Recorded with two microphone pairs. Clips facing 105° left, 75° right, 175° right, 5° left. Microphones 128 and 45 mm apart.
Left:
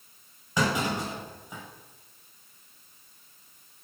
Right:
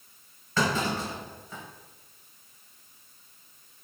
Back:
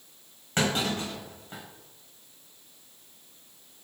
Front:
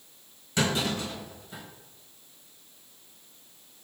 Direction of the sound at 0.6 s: 170° left.